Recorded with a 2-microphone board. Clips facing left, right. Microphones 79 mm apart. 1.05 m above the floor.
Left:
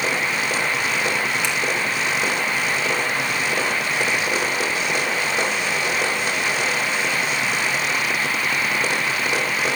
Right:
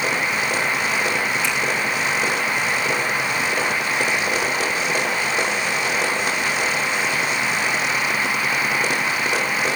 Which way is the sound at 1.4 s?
70° left (ahead or behind).